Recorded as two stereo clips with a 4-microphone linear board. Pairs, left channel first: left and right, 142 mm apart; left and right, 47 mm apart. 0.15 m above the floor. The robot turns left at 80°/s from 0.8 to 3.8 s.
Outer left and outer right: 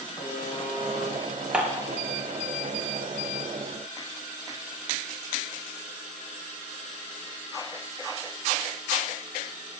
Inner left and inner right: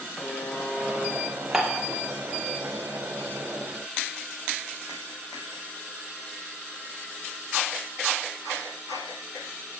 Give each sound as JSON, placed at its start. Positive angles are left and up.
{"t": 0.2, "sound": "a buzzer", "side_deg": 75, "distance_m": 7.5}
{"t": 1.5, "sound": "dishes clattering", "side_deg": -5, "distance_m": 2.0}